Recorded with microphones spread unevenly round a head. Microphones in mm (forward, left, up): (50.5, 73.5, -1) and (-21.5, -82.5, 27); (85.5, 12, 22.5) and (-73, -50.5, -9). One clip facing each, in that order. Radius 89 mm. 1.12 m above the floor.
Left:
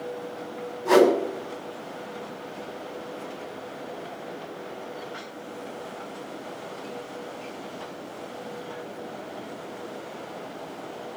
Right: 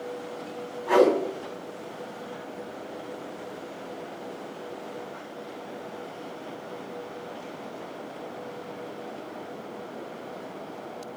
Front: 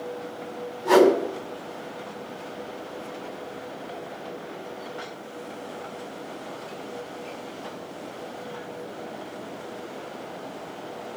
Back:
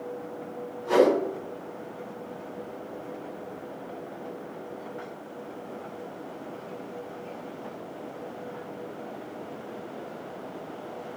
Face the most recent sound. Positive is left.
turn(degrees=25)